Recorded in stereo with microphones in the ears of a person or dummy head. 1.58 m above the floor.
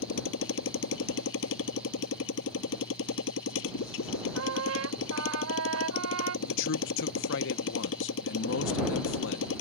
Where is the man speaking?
70° left (ahead or behind).